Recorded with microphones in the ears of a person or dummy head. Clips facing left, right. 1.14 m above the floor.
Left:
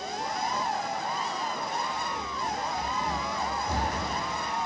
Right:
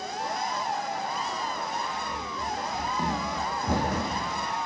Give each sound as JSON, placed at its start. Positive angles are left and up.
{"t": 2.1, "sound": "running footsteps", "side_deg": -20, "distance_m": 3.5}